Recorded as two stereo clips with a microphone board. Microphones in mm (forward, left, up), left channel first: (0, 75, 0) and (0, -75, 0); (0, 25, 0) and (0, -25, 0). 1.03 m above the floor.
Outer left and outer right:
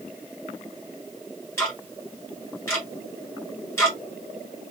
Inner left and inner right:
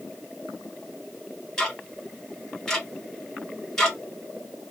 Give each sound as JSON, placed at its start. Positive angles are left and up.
{"t": 1.6, "sound": "ticking", "side_deg": 15, "distance_m": 1.4}